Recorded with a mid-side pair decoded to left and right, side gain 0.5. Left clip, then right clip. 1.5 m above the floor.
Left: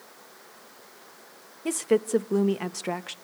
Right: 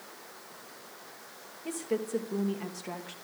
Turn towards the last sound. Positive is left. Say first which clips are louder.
# left 9 dB
turn(degrees=60)